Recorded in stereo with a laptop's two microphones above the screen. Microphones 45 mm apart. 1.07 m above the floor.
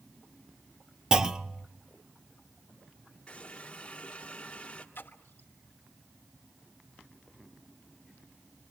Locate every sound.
1.1 s a clunk: 20° right (ahead or behind), 0.6 m
3.3 s a running tap: 20° left (ahead or behind), 2.0 m
5.0 s a splash: 55° left (ahead or behind), 1.4 m